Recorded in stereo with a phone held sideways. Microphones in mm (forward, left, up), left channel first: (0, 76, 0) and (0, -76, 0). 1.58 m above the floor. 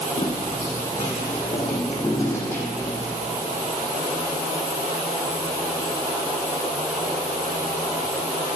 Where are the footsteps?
45° left (ahead or behind), 4.5 m; by 3.1 s 5° left (ahead or behind), 3 m.